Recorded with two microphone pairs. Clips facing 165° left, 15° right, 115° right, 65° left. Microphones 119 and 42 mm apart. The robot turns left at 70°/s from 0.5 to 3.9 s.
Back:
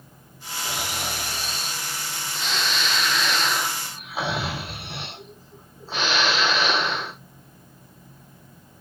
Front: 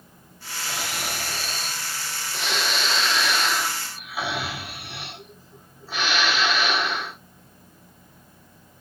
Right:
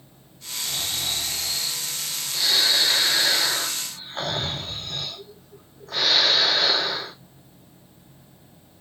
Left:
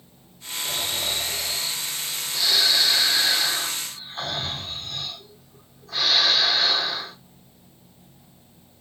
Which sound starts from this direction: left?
Snoring, at 0.7 s.